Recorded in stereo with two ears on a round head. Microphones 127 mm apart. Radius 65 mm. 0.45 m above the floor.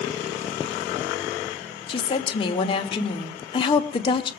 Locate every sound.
1.9 s a woman speaking: 35° left (ahead or behind), 1.5 m